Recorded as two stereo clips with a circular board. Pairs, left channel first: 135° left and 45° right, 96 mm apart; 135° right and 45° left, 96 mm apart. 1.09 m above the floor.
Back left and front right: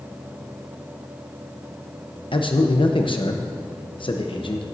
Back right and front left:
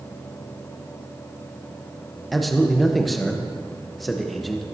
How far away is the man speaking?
About 0.9 m.